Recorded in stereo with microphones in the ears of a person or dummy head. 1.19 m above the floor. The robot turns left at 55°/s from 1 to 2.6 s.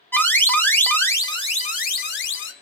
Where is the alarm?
170° left, 0.5 m; by 2.5 s 90° left, 0.5 m.